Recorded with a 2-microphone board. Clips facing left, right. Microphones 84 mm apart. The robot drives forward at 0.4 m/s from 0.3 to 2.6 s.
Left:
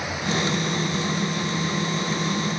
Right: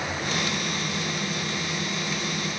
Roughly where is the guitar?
I don't hear a guitar.